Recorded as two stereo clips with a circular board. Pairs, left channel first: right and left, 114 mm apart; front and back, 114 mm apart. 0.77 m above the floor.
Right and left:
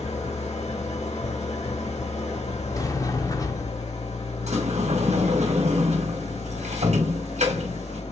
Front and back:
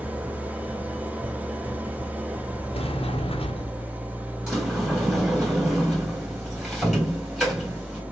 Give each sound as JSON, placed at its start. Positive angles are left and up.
{"t": 0.0, "sound": "an engine running", "azimuth_deg": -105, "distance_m": 1.8}
{"t": 2.7, "sound": "a sliding door", "azimuth_deg": -30, "distance_m": 0.9}
{"t": 4.5, "sound": "a sliding door", "azimuth_deg": 90, "distance_m": 2.5}